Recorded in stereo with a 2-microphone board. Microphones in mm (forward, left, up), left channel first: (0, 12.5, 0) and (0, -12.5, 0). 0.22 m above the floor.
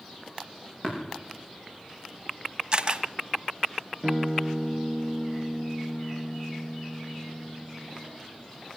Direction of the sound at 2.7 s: 35° right (ahead or behind).